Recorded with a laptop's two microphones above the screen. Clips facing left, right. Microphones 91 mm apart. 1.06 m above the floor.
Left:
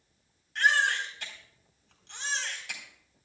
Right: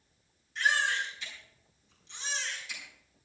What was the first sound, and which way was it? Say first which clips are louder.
A baby crying: left 3 dB; 75° left (ahead or behind).